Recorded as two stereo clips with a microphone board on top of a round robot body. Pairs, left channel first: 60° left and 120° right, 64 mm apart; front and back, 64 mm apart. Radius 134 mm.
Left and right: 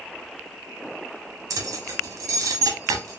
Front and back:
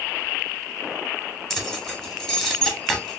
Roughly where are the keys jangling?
Right.